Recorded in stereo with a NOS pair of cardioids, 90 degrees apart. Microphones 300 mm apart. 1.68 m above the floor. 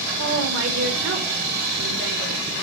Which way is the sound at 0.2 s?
55° right.